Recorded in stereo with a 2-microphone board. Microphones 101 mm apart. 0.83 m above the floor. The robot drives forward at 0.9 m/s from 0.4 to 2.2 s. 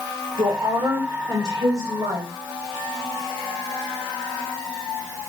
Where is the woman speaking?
55° right (ahead or behind), 2.5 m; by 2.3 s 35° right (ahead or behind), 3.5 m.